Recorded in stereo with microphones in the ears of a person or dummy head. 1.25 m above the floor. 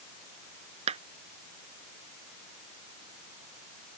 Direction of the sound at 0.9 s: 35° right (ahead or behind).